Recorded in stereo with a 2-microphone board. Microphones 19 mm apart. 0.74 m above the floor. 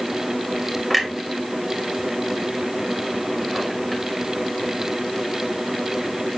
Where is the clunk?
5° right (ahead or behind), 2.5 m.